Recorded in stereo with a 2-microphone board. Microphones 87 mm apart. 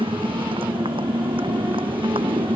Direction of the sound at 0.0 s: 80° right.